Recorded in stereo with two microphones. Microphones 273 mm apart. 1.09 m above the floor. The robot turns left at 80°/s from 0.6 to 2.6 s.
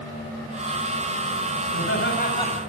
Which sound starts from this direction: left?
Laughter, at 1.7 s.